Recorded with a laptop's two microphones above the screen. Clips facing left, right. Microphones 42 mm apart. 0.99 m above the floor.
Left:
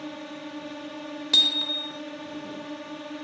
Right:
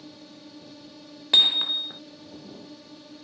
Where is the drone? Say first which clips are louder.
Left 9 dB; 55° left (ahead or behind).